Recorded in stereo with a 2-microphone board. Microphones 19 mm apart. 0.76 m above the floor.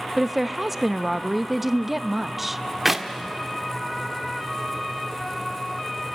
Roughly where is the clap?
Centre.